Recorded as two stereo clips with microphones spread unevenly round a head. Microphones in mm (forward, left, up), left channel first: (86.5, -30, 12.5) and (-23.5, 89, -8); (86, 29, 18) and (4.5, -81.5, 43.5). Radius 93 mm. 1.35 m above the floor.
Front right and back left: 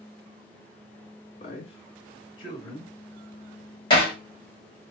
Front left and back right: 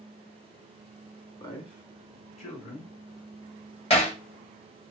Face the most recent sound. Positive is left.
turn(degrees=10)